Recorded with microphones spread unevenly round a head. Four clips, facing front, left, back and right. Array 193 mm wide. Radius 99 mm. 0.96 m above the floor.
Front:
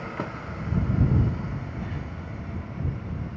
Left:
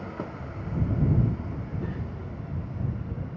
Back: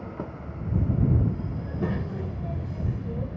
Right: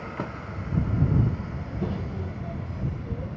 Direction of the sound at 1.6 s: 145° right.